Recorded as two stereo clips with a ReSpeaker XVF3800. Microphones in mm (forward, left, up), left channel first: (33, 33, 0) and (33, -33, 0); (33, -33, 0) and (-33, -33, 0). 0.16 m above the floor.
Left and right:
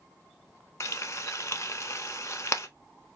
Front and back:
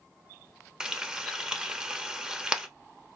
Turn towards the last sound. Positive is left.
turn(degrees=105)